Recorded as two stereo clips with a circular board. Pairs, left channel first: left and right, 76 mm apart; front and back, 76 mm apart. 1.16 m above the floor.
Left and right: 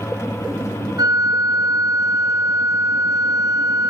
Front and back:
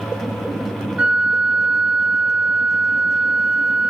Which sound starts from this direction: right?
A flute, at 1.0 s.